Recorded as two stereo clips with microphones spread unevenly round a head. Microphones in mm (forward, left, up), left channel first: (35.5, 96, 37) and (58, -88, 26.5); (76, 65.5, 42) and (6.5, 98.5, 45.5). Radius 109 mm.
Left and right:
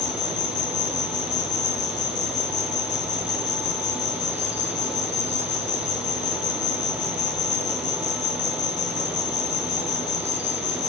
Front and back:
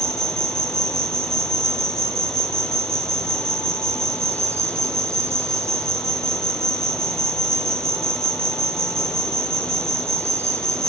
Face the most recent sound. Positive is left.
turn(degrees=100)